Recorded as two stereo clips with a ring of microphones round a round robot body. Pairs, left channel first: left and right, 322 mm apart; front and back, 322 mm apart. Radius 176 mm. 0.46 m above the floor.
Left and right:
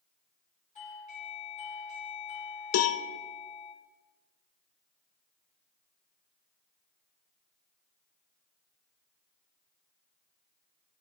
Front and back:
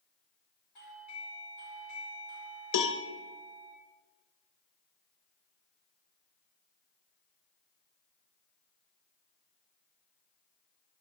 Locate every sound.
0.8 s a doorbell: 25° left, 2.5 m
2.7 s a cowbell: 40° left, 0.5 m